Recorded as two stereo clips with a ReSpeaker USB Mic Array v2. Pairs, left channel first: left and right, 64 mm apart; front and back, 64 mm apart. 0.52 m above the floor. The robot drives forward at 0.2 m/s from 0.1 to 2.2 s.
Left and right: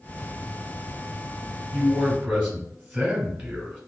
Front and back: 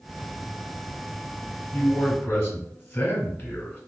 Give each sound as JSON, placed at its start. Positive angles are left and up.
{"t": 1.7, "sound": "a man speaking", "azimuth_deg": -30, "distance_m": 1.1}